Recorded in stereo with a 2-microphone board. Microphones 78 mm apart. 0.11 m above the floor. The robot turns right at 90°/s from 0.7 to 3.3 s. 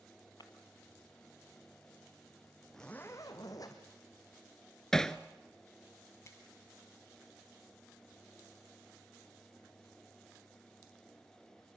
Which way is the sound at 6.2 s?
35° left (ahead or behind).